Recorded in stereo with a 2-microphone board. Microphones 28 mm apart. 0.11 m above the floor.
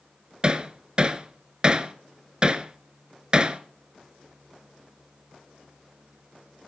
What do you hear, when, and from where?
0.4 s hammering: 30° right (ahead or behind), 1.1 m